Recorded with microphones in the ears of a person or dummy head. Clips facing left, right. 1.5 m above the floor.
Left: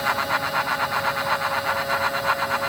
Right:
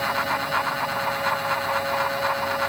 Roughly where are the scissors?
I don't hear scissors.